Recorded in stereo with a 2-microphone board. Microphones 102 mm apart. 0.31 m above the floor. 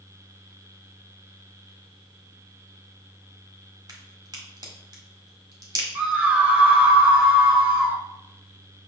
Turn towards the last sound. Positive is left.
turn(degrees=-15)  # may be behind; listen again after turning